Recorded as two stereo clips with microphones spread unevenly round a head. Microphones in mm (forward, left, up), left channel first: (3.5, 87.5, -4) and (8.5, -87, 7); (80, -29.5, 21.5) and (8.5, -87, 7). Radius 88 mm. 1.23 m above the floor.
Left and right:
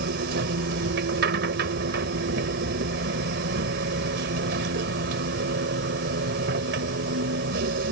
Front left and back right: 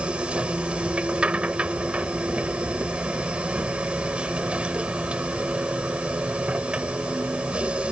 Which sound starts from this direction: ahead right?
A machine running, at 0.0 s.